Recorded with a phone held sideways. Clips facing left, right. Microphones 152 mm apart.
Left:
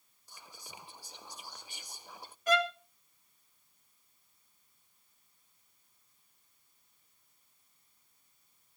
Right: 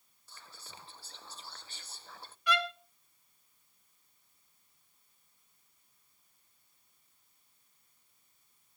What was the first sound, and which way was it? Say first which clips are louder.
Whispering: left 2 dB; 15° left (ahead or behind).